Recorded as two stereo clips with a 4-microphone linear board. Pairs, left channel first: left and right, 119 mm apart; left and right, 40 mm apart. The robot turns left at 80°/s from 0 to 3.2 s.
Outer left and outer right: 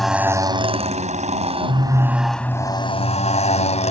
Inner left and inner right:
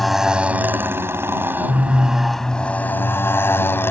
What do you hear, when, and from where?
0.0 s a motorcycle: straight ahead; by 3.9 s 105° left